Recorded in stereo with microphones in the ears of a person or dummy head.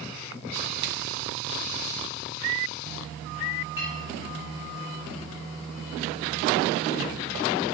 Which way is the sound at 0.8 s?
25° right (ahead or behind).